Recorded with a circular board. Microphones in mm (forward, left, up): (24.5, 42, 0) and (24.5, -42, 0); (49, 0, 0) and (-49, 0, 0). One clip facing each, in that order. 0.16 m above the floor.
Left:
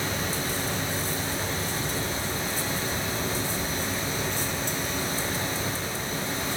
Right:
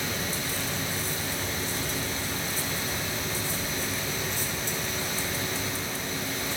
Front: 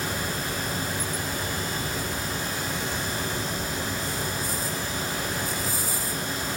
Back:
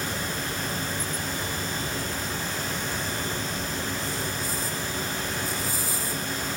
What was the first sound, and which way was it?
Only background noise.